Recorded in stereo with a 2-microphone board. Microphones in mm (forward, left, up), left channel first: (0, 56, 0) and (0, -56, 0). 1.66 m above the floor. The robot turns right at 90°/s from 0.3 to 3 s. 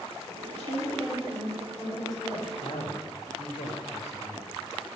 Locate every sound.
0.5 s a woman speaking: 95° right, 8.5 m; by 2.5 s 85° left, 8.5 m
2.6 s a man speaking: 65° left, 2.5 m; by 4.6 s 100° left, 2.5 m